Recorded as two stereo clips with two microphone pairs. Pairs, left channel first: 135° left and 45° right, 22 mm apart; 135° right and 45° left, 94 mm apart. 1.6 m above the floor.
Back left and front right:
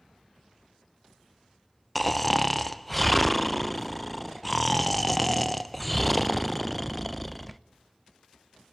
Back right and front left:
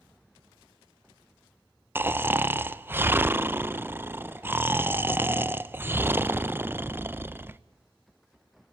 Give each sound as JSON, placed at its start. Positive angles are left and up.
{"t": 1.9, "sound": "snoring", "azimuth_deg": 60, "distance_m": 0.7}